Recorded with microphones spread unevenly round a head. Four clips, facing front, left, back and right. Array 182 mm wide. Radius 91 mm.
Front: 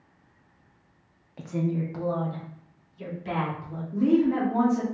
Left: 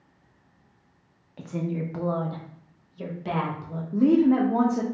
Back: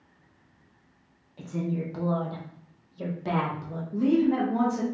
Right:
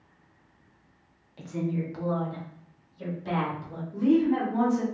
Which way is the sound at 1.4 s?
35° left.